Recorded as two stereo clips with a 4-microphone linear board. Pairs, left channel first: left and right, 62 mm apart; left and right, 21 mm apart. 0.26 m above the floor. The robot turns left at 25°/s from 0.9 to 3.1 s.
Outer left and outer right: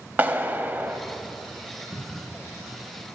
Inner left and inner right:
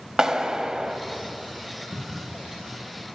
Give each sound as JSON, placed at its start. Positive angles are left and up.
{"t": 0.2, "sound": "a clap", "side_deg": -30, "distance_m": 1.0}
{"t": 1.9, "sound": "a cupboard door", "side_deg": 10, "distance_m": 3.0}